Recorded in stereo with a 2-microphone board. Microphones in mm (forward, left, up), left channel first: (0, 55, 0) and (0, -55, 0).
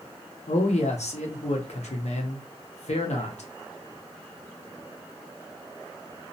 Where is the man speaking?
80° left, 0.7 m.